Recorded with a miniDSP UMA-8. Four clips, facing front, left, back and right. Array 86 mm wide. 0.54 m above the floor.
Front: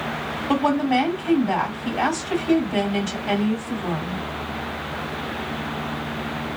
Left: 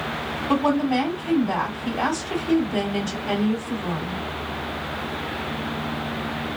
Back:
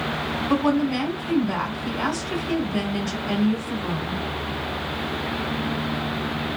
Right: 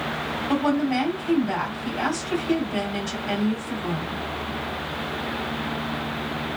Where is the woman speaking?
Straight ahead, 2.5 m.